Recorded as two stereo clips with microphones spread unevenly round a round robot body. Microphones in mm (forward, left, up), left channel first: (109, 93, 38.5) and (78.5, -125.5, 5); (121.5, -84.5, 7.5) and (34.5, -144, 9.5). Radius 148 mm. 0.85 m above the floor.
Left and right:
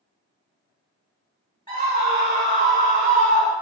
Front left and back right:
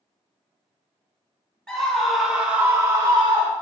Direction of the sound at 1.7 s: 40° right.